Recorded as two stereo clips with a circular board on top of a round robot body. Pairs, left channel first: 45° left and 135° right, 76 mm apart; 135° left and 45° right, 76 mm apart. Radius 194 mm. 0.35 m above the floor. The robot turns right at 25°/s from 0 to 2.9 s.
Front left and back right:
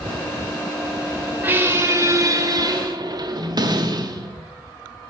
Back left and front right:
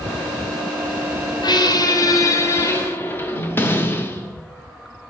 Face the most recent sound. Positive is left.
turn(degrees=-165)